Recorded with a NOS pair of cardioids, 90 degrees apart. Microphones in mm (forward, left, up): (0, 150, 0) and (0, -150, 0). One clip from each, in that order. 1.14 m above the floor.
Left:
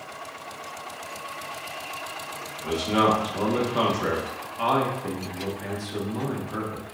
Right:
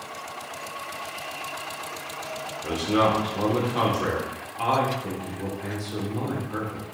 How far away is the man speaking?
About 1.0 m.